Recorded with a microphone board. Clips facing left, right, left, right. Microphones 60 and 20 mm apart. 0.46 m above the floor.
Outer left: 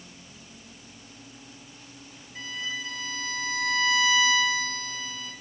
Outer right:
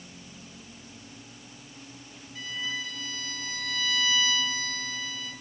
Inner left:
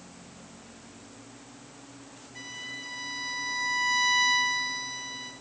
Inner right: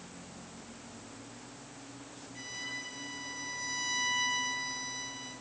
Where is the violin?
35° left (ahead or behind), 7 m.